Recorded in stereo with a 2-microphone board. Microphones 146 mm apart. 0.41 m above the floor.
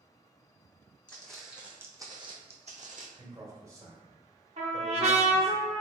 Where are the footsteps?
10° left (ahead or behind), 1.1 m; by 3.1 s 65° right (ahead or behind), 1.0 m.